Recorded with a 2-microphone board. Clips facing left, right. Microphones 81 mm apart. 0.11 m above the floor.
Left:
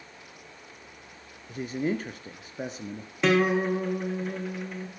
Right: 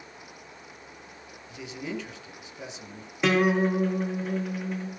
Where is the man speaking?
45° left (ahead or behind), 2 m.